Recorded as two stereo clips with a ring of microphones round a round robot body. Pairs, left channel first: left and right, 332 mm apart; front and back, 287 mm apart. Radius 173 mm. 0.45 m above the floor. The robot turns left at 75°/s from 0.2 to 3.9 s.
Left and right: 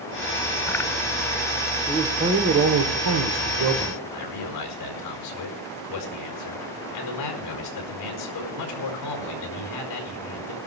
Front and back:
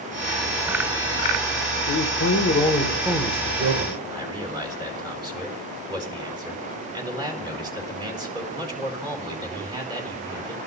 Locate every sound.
1.9 s a man speaking: straight ahead, 1.2 m; by 4.0 s 150° right, 1.2 m
4.1 s a man speaking: 105° left, 4.5 m